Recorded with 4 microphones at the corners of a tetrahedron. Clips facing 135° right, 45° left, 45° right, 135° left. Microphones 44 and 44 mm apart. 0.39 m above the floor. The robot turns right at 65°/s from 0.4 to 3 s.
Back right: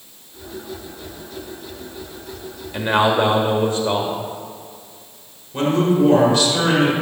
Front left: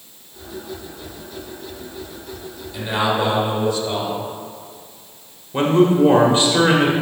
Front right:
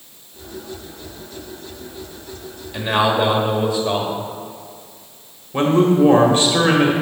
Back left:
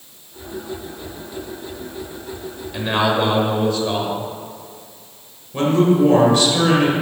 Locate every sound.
2.7 s a man speaking: 135° right, 1.4 m; by 4.2 s 120° right, 1.4 m
5.5 s a man speaking: straight ahead, 1.3 m